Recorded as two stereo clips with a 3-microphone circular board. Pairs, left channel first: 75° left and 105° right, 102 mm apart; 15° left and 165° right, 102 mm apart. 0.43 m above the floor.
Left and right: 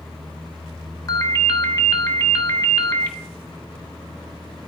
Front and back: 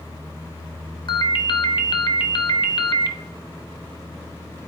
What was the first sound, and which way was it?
A ringtone, 30° left.